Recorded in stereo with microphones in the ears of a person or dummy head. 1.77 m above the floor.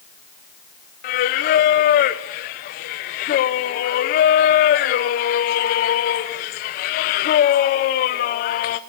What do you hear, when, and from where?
1.0 s singing: 40° left (ahead or behind), 0.8 m